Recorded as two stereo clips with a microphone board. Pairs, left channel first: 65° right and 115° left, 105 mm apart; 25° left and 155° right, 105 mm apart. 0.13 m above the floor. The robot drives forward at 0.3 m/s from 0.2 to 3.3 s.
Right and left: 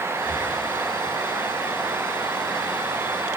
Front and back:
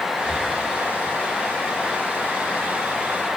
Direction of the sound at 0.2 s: 140° left.